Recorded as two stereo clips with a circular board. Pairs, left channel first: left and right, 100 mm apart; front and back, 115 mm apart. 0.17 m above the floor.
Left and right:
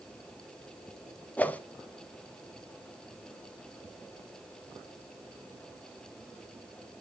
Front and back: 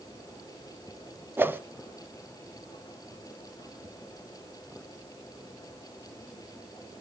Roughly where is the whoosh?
Behind left.